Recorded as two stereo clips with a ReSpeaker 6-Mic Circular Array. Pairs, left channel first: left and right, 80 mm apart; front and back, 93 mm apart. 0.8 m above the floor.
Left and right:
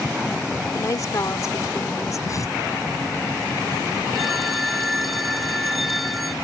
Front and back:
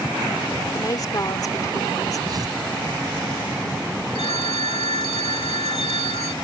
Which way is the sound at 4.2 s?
Straight ahead.